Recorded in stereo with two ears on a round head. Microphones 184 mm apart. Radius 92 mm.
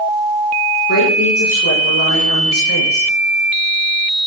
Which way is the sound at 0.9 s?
85° left.